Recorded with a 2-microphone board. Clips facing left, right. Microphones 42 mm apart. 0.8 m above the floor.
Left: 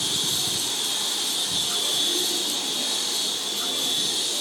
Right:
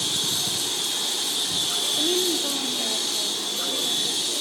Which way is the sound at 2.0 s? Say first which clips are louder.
Right 3 dB; 55° right (ahead or behind).